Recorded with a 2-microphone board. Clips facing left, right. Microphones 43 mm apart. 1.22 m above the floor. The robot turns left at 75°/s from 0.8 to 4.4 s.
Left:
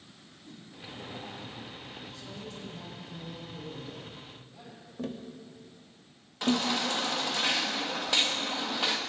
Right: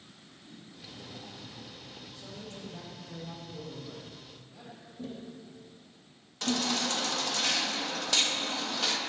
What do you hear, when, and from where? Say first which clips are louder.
0.5 s a whoosh: left 2 dB; 65° left (ahead or behind), 2.5 m
2.1 s a man speaking: left 2 dB; 5° right, 5.5 m; by 4.9 s 175° right, 5.5 m
5.0 s tapping: left 4 dB; 70° left (ahead or behind), 1.1 m
6.4 s a baby crying: left 3 dB; 15° left (ahead or behind), 1.1 m